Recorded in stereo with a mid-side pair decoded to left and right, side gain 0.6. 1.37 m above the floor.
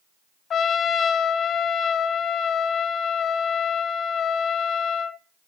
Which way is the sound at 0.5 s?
40° left.